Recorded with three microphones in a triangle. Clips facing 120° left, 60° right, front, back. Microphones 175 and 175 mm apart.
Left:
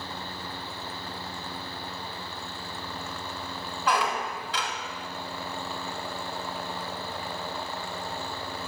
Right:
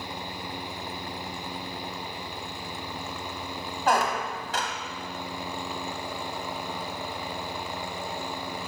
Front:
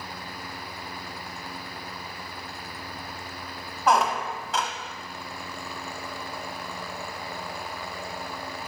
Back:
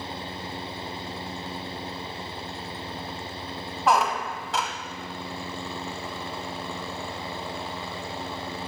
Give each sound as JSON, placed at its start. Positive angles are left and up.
{"t": 3.9, "sound": "a squeak", "azimuth_deg": -90, "distance_m": 1.0}